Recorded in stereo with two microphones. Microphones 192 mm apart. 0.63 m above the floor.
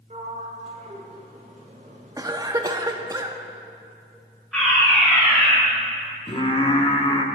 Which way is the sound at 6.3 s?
30° left (ahead or behind).